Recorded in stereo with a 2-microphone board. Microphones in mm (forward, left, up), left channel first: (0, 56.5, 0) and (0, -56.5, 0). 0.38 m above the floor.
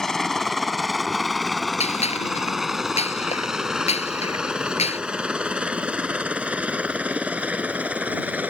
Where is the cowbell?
No cowbell in this recording.